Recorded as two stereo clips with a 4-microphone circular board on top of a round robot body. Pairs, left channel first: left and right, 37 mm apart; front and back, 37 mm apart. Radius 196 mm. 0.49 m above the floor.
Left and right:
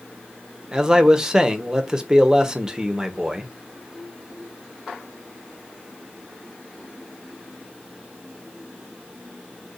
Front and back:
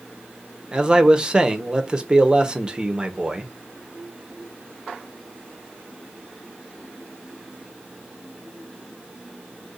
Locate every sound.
0.7 s a man speaking: 145° right, 1.2 m